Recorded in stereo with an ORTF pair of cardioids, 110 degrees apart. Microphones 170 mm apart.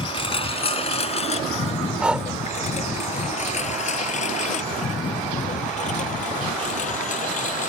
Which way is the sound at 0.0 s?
30° left.